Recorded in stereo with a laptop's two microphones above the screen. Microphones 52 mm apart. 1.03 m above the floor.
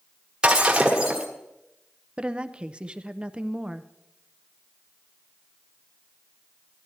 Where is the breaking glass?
15° right (ahead or behind), 1.5 m.